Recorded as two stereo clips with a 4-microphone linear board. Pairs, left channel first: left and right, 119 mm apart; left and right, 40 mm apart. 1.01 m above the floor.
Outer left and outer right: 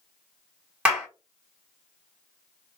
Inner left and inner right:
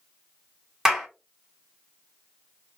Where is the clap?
10° right (ahead or behind), 1.3 m.